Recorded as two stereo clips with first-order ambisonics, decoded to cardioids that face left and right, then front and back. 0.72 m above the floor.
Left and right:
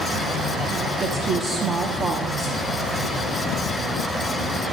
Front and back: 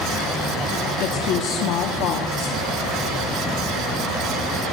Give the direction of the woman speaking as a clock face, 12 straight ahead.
1 o'clock.